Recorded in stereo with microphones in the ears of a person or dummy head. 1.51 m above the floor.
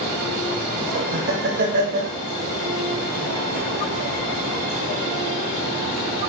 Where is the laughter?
50° right (ahead or behind), 1.8 m.